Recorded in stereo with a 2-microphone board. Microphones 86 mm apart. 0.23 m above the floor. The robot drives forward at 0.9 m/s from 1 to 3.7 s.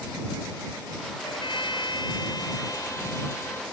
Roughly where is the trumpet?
Left.